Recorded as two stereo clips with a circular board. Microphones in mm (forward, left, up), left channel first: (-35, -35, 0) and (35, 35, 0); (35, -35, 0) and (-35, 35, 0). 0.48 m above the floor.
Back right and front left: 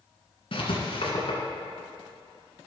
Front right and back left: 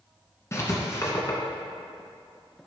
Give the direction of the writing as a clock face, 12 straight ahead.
4 o'clock.